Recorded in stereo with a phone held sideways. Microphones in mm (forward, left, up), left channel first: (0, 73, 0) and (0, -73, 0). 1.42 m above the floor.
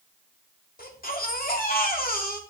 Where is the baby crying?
80° left, 2.5 m.